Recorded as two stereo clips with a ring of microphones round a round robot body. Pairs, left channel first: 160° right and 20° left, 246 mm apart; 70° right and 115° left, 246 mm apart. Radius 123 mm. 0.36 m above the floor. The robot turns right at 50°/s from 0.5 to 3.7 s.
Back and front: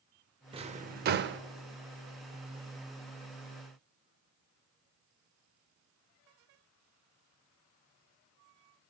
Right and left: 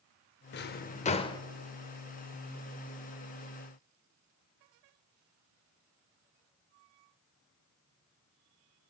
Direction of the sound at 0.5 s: 40° right.